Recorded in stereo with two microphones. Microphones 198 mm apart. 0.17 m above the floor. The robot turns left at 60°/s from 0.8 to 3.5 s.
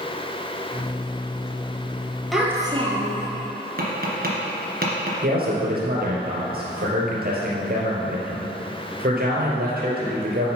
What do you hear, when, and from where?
2.3 s a child speaking: straight ahead, 2.5 m; by 3.3 s 60° right, 2.5 m
3.8 s tapping: 50° right (ahead or behind), 2 m
5.2 s a man speaking: 50° right (ahead or behind), 3 m